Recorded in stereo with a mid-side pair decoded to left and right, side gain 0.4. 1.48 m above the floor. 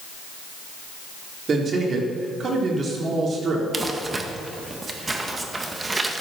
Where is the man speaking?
50° right, 4 m.